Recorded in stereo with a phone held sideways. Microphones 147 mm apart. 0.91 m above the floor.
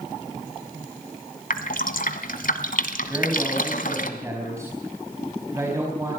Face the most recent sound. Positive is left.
turn(degrees=-20)  # may be behind; listen again after turning